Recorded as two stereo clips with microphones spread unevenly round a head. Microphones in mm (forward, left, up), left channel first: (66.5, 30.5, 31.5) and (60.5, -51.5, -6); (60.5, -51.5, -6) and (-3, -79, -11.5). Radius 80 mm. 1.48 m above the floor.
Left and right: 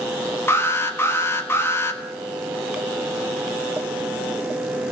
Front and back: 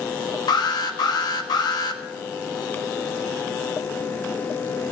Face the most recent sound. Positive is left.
turn(degrees=40)